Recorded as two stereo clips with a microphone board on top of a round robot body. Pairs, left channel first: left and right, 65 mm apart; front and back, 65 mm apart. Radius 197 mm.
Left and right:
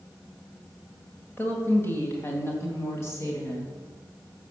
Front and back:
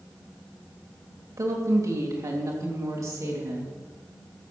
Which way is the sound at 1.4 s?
150° left.